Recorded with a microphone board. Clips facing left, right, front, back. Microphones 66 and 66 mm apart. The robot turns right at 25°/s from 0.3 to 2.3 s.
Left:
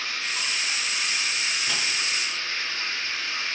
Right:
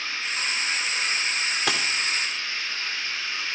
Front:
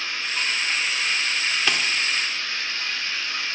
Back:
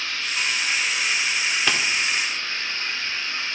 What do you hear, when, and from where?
0.0 s running water: 75° left, 3.5 m; by 3.5 s 125° left, 3.5 m
1.7 s a dropped coin: 105° right, 2 m; by 1.9 s 95° right, 2 m